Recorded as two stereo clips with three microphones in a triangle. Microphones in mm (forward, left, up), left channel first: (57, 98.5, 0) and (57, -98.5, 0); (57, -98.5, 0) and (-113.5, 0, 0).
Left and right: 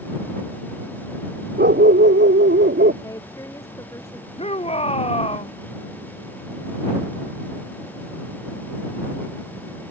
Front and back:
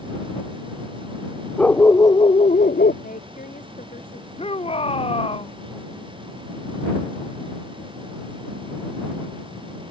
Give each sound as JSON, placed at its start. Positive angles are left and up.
{"t": 1.6, "sound": "a dog barking", "azimuth_deg": -115}
{"t": 3.0, "sound": "a woman speaking", "azimuth_deg": 15}
{"t": 4.4, "sound": "a shout", "azimuth_deg": 30}